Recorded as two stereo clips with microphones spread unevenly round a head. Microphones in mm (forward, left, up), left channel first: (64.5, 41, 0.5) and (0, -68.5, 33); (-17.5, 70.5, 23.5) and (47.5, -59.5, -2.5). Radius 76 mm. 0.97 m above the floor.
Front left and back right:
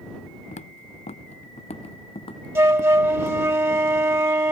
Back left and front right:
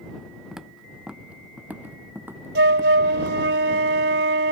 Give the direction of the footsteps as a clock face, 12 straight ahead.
11 o'clock.